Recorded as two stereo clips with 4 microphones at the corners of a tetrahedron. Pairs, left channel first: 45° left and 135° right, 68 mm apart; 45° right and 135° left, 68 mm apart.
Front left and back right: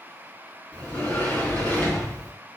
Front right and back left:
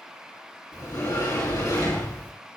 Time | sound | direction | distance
0.7 | a sliding door | 25° right | 3.5 m